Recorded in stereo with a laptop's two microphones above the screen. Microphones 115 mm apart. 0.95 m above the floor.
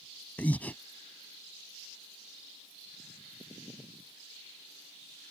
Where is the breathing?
15° left (ahead or behind).